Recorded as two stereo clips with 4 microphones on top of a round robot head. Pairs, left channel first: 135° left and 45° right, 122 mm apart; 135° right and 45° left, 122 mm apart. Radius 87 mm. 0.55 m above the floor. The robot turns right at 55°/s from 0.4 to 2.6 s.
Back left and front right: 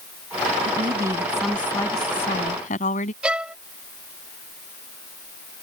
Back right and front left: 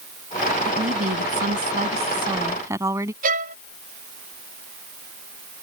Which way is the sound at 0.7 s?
5° left.